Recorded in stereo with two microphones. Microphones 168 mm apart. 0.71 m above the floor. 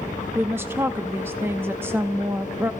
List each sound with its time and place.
0.3 s a woman speaking: 15° right (ahead or behind), 0.6 m